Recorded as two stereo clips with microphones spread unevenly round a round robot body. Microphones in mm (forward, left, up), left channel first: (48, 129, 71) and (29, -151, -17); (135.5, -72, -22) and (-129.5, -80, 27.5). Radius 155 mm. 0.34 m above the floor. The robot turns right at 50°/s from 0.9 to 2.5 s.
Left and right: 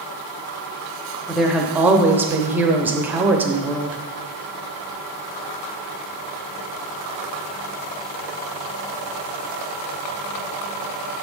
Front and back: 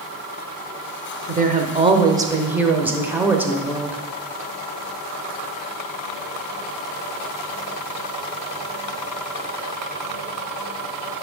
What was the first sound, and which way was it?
A woman speaking, 140° right.